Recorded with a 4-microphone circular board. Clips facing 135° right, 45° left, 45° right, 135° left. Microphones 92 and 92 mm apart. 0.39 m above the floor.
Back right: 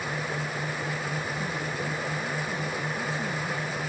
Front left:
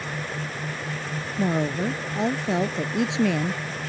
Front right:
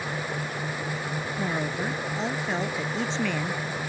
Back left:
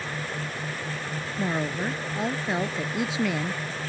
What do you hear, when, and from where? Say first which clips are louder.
1.4 s a woman speaking: front left 8 dB, back left 2 dB; 50° left